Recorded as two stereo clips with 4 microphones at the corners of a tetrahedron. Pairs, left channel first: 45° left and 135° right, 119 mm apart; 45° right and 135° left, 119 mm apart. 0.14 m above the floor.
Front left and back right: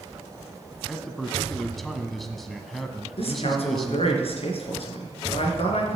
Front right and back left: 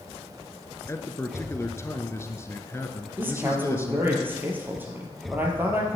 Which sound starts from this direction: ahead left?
A man speaking, at 3.2 s.